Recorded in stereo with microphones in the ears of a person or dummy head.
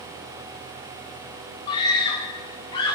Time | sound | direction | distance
1.7 | a scream | 20° left (ahead or behind) | 1.5 m